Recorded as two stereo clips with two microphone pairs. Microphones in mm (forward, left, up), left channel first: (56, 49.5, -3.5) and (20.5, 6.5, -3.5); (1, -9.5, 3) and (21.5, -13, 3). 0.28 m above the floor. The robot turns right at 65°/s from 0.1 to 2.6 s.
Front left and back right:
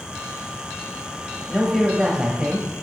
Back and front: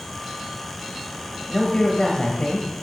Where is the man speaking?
115° left, 1.1 m; by 2.7 s 170° right, 1.1 m.